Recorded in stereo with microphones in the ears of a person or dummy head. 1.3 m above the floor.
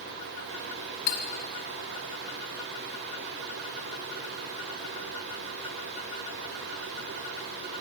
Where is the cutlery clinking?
60° left (ahead or behind), 1.7 m.